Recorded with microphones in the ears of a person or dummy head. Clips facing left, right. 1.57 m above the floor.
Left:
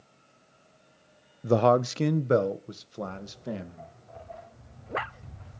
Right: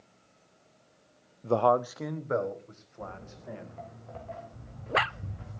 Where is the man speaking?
10° left (ahead or behind), 0.5 m; by 3.9 s 45° left (ahead or behind), 3 m.